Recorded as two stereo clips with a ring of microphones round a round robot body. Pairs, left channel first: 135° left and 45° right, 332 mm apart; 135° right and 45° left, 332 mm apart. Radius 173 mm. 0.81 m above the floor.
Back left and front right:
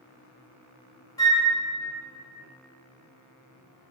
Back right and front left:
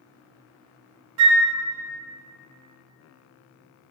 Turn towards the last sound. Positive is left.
turn(degrees=55)